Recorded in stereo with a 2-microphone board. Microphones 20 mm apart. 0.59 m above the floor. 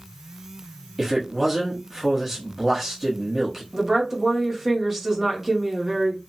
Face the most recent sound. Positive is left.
turn(degrees=-20)  # may be behind; listen again after turning